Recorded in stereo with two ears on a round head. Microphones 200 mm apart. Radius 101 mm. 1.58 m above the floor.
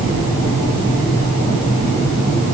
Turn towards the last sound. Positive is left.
No sound to turn to.